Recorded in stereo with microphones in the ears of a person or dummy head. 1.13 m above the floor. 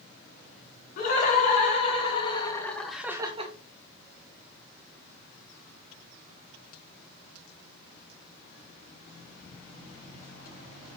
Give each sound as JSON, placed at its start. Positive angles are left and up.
{"t": 1.0, "sound": "laughter", "side_deg": 45, "distance_m": 3.5}